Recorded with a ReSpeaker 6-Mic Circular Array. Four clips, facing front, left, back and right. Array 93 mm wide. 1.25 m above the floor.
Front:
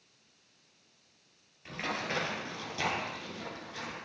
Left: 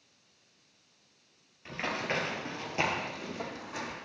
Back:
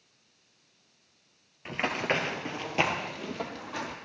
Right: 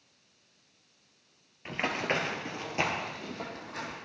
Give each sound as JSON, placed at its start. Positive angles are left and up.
{"t": 1.6, "sound": "running footsteps", "azimuth_deg": -140, "distance_m": 1.6}